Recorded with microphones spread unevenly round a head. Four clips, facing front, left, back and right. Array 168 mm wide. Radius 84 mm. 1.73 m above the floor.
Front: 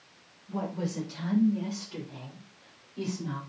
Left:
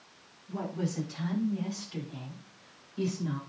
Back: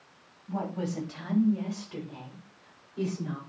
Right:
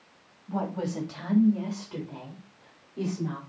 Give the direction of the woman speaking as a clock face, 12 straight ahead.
4 o'clock.